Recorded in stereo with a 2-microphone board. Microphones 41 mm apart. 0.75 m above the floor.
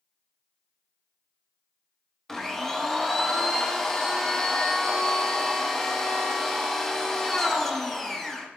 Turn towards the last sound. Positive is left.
turn(degrees=10)  # may be behind; listen again after turning